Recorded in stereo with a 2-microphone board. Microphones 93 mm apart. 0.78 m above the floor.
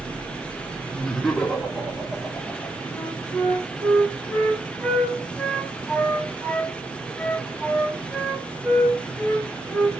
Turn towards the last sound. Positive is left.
turn(degrees=5)  # may be behind; listen again after turning